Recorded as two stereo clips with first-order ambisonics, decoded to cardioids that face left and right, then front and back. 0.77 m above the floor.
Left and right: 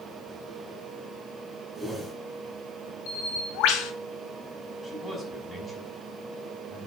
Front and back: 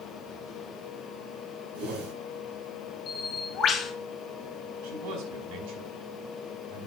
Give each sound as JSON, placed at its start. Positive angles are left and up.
{"t": 1.8, "sound": "a whoosh", "azimuth_deg": -175, "distance_m": 5.5}
{"t": 3.1, "sound": "a bird", "azimuth_deg": 65, "distance_m": 3.0}
{"t": 4.8, "sound": "a man speaking", "azimuth_deg": 175, "distance_m": 6.0}